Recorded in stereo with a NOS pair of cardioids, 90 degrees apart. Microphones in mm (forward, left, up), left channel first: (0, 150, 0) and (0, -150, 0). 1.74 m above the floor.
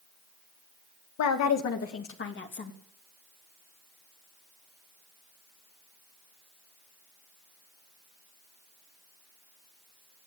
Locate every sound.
1.2 s a woman speaking: 70° left, 2 m; by 2.7 s 35° left, 3 m